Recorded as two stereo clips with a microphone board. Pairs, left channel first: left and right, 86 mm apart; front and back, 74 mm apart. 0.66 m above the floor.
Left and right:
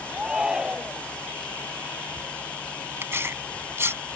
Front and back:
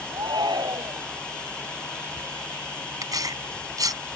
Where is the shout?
170° right.